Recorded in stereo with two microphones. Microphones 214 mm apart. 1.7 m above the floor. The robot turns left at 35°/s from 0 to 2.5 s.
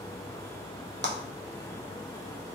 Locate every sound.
1.0 s a clap: 60° right (ahead or behind), 0.6 m; by 1.1 s 55° right (ahead or behind), 0.6 m